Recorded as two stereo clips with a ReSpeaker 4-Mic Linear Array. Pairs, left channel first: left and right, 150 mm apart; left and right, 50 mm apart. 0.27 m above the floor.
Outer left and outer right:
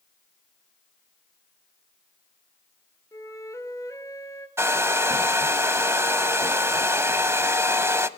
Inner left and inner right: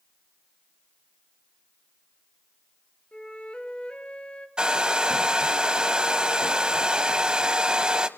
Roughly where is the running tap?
I don't hear a running tap.